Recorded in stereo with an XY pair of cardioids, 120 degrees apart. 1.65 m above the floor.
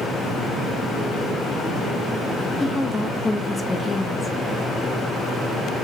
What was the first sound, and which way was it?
A woman speaking, 15° left.